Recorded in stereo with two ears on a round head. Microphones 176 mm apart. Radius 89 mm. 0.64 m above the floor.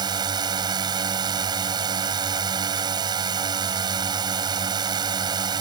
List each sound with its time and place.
0.0 s a drone: 20° right (ahead or behind)